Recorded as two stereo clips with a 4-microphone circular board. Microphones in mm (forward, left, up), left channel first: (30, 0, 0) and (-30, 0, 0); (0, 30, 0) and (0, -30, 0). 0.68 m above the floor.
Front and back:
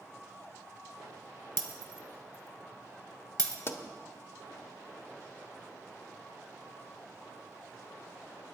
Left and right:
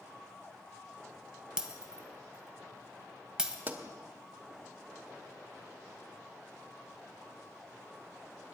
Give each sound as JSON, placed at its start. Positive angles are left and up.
{"t": 1.6, "sound": "breaking glass", "azimuth_deg": -170, "distance_m": 1.2}
{"t": 3.7, "sound": "a pop", "azimuth_deg": -35, "distance_m": 1.1}